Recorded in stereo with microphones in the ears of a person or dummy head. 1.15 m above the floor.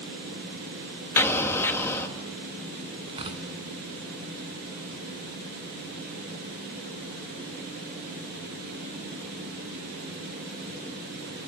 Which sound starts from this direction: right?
Tearing paper, at 3.1 s.